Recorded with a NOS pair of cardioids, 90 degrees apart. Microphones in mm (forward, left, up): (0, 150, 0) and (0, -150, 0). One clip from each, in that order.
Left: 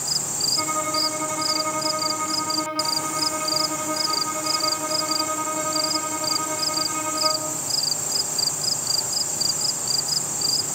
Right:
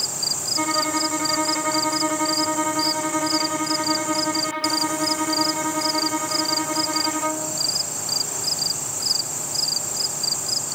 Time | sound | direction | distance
0.6 | a violin | 50° right | 3.5 m